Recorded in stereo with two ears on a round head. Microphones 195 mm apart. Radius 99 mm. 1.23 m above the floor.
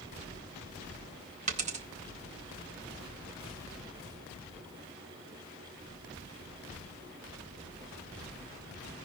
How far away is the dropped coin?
About 1.1 m.